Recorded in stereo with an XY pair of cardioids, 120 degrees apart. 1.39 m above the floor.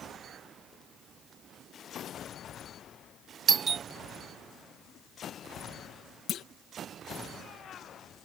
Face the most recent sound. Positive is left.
turn(degrees=60)